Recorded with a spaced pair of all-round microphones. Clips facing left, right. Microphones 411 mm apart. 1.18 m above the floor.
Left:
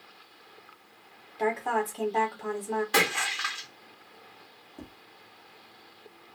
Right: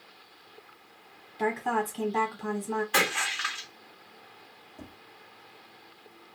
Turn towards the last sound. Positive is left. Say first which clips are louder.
# left 2 dB
turn(degrees=55)  # may be behind; listen again after turning